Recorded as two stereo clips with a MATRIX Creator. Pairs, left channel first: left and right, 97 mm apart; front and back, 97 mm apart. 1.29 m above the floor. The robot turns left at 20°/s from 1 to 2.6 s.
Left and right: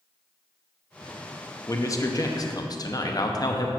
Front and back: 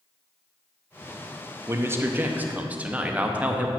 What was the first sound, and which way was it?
A man speaking, 130° left.